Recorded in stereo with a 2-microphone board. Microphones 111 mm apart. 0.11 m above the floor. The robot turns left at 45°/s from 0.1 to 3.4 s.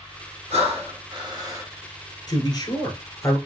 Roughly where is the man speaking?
Left.